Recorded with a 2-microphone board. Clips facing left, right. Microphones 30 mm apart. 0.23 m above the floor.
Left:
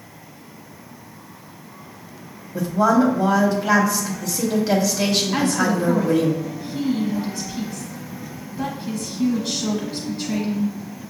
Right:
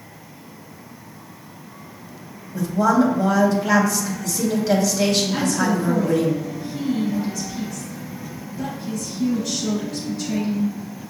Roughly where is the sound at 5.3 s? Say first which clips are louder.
Left 1 dB; left.